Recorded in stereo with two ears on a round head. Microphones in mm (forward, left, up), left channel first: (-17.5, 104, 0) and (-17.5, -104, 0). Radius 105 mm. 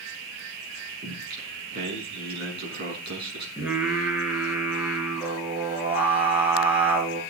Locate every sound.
1.0 s singing: 45° right (ahead or behind), 6 m
3.6 s singing: 5° right (ahead or behind), 4.5 m